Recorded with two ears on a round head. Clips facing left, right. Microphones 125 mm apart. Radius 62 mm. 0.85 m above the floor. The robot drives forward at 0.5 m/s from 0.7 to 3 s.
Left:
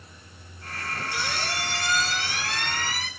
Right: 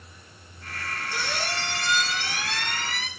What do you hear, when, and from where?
1.1 s a squeak: 35° right (ahead or behind), 3 m; by 3.1 s 25° right (ahead or behind), 3.5 m